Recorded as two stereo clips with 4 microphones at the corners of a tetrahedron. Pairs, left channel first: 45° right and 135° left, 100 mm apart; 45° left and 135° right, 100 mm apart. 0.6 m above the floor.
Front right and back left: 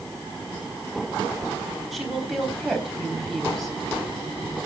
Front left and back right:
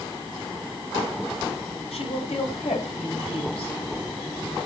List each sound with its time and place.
1.9 s a woman speaking: 45° left, 3.5 m